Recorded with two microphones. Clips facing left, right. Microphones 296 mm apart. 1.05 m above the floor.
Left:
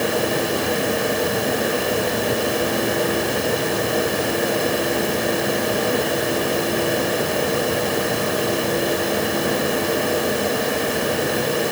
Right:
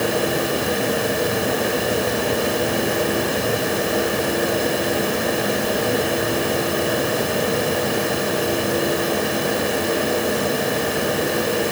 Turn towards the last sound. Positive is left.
No sound to turn to.